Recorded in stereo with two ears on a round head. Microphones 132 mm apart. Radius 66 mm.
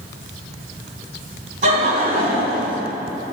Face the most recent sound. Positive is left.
turn(degrees=-55)  # may be behind; listen again after turning